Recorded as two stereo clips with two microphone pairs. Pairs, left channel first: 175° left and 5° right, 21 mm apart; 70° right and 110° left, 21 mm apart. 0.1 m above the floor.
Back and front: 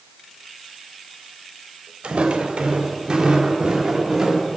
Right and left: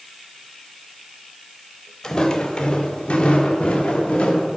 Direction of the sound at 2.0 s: 20° right.